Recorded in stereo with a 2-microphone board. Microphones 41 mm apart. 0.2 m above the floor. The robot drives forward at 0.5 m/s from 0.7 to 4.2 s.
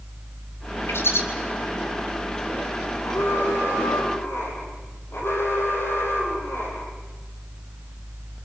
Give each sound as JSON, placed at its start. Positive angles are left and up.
{"t": 0.9, "sound": "a bird", "side_deg": 70, "distance_m": 4.5}
{"t": 3.0, "sound": "an alarm", "side_deg": 60, "distance_m": 6.0}